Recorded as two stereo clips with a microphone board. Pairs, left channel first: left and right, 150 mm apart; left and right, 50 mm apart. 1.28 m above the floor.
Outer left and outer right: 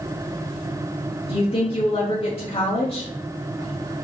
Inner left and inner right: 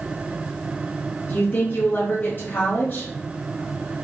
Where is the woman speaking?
35° left (ahead or behind), 0.6 m.